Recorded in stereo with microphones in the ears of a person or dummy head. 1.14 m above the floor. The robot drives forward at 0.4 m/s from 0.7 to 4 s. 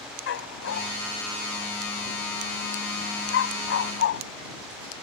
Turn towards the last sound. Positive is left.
turn(degrees=65)  # may be behind; listen again after turning